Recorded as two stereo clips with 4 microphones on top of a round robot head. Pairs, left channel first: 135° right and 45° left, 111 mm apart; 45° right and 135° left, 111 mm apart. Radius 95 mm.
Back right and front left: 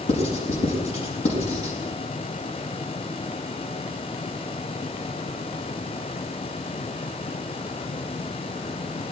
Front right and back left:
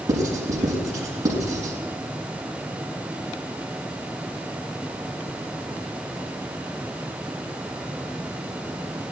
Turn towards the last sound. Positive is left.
turn(degrees=-165)